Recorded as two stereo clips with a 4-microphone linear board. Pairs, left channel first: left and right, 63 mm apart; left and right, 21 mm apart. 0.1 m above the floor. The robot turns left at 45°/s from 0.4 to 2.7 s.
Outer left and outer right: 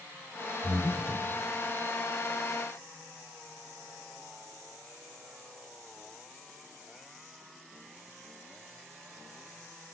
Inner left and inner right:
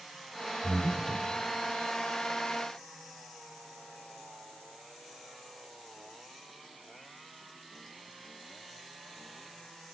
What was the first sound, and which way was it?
Breathing, 20° left (ahead or behind).